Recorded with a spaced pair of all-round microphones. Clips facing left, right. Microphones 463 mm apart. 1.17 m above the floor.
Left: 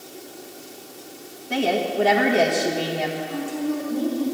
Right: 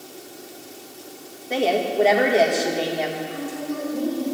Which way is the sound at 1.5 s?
30° left (ahead or behind).